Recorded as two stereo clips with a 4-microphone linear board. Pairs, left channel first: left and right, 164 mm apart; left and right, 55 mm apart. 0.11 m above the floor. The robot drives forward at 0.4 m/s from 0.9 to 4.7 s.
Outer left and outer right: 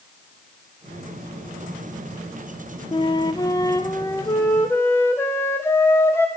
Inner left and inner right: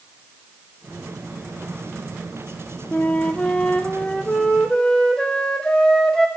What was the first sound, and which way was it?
A flute, 30° left (ahead or behind).